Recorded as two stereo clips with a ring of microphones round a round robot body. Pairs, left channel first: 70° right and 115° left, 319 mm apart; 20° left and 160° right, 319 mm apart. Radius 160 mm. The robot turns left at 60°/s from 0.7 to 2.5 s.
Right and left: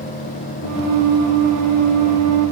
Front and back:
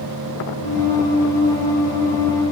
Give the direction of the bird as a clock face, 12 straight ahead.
No bird in this recording.